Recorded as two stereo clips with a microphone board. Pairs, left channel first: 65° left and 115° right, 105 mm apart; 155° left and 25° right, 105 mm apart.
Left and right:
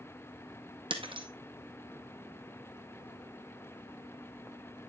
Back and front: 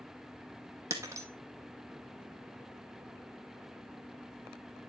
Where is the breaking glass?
85° right, 1.7 m.